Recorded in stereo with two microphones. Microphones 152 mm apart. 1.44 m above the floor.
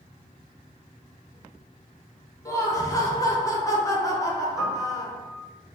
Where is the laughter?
20° left (ahead or behind), 0.8 m.